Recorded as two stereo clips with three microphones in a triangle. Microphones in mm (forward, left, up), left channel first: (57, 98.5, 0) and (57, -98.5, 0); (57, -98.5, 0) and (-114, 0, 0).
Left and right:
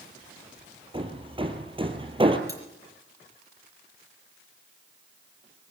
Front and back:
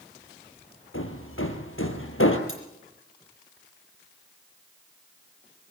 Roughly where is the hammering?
Ahead right.